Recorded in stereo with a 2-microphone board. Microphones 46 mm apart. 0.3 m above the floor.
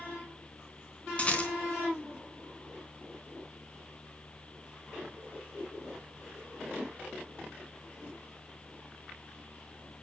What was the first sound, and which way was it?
A rattle, 30° left (ahead or behind).